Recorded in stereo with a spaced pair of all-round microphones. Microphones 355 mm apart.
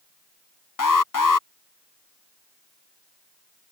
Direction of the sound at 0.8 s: 60° left (ahead or behind).